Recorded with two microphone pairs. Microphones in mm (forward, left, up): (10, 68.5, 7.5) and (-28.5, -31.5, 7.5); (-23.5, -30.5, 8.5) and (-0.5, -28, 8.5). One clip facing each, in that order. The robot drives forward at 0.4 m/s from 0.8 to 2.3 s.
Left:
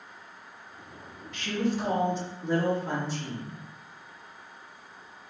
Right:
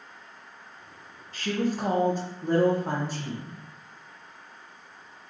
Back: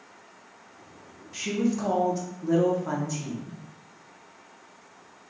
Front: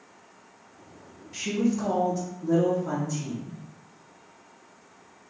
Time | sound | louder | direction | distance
1.3 | a woman speaking | right 1 dB, front 1 dB | 85° right | 0.8 m